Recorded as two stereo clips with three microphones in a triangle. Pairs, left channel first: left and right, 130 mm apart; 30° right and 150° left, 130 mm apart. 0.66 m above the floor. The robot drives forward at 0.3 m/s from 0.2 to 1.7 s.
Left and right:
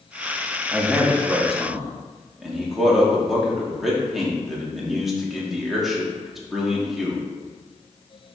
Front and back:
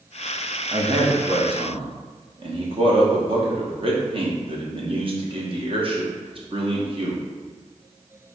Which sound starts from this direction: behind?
A man speaking, at 0.7 s.